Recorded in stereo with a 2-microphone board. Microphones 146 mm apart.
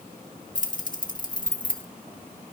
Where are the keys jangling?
60° left (ahead or behind), 1.3 m.